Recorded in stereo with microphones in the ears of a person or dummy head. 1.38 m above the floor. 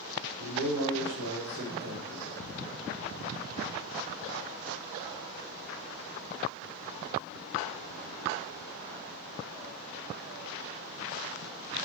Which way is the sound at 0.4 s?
45° right (ahead or behind).